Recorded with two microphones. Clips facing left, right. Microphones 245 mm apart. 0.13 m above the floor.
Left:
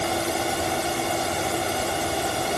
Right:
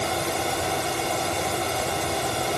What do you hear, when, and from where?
Only background noise.